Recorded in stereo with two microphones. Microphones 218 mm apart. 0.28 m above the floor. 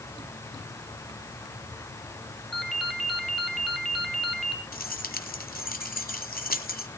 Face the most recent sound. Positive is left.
turn(degrees=45)  # may be behind; listen again after turning